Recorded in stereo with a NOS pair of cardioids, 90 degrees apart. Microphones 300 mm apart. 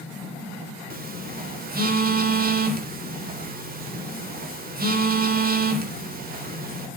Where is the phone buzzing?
30° right, 3.5 m.